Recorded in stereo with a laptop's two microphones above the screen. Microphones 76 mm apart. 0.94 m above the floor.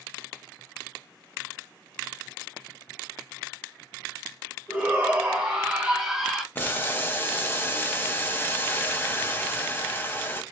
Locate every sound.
4.7 s a shout: 10° right (ahead or behind), 1.7 m; by 6.5 s centre (ahead or behind), 0.8 m
6.5 s boiling: 25° left (ahead or behind), 0.7 m